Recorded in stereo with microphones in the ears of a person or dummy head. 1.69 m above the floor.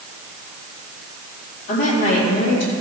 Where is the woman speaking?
60° left (ahead or behind), 3 m; by 2.7 s 75° left (ahead or behind), 3 m.